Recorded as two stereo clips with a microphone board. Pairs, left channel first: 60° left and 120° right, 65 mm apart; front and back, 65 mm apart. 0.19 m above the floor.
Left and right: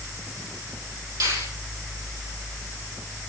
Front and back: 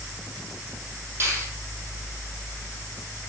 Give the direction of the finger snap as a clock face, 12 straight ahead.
4 o'clock.